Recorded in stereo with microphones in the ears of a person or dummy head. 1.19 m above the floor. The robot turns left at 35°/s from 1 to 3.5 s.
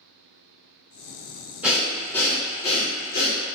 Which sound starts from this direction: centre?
Breathing, at 1.6 s.